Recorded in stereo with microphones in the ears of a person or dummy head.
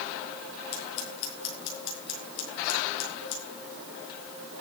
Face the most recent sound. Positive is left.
turn(degrees=75)  # may be behind; listen again after turning